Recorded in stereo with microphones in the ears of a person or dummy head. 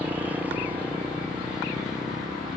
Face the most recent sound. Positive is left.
turn(degrees=0)  # may be behind; listen again after turning